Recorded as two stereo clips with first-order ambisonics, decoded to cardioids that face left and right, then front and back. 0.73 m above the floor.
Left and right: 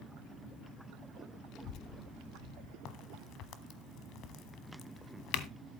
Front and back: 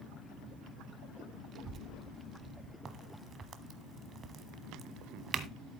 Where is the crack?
120° left, 1.0 m.